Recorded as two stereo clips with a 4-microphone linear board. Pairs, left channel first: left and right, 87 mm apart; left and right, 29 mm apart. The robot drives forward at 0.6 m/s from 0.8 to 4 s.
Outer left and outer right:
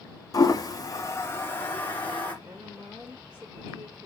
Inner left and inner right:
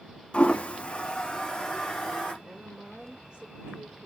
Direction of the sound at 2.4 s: 20° right (ahead or behind).